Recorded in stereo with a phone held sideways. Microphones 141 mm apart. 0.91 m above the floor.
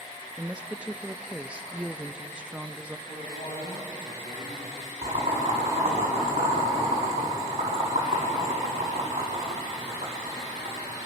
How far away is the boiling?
About 7 m.